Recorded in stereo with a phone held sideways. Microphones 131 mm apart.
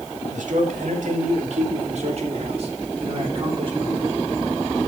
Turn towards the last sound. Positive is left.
turn(degrees=-40)  # may be behind; listen again after turning